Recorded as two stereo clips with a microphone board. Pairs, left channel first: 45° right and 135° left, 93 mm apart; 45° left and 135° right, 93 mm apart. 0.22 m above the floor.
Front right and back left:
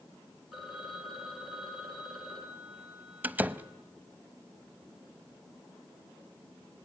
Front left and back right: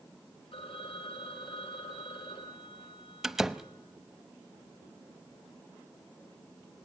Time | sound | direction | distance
0.5 | a phone ringing | 50° left | 5.5 m
3.2 | a door slam | 145° left | 0.7 m